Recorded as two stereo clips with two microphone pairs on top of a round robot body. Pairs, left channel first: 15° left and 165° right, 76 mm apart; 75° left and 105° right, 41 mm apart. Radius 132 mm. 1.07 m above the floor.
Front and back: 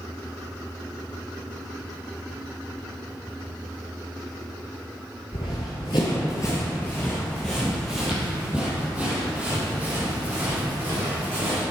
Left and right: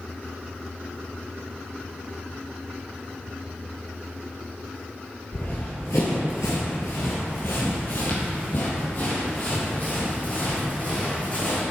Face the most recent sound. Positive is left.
turn(degrees=130)